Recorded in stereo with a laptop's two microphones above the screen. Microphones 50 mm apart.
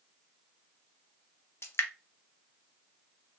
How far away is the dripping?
About 0.5 m.